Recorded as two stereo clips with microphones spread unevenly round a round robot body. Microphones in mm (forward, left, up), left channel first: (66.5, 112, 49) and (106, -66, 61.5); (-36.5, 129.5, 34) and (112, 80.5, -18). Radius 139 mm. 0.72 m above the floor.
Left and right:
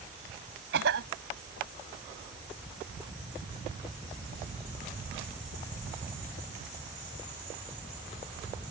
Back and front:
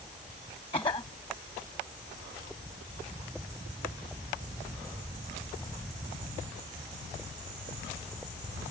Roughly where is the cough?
Behind right.